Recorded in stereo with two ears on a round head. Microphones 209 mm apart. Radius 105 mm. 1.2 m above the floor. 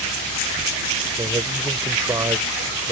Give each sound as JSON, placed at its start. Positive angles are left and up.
{"t": 1.2, "sound": "a man speaking", "side_deg": -15}